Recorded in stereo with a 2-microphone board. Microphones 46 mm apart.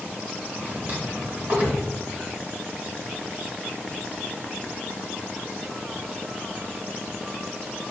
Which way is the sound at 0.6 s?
45° right (ahead or behind).